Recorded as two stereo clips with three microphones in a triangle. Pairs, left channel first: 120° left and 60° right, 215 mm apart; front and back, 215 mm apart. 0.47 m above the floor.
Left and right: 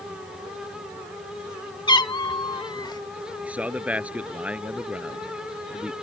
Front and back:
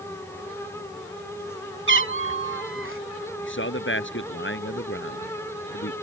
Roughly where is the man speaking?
Ahead left.